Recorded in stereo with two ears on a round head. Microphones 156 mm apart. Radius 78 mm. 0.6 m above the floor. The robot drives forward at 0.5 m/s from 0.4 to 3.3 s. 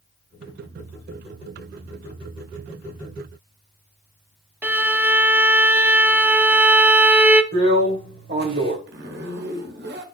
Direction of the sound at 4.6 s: 10° right (ahead or behind).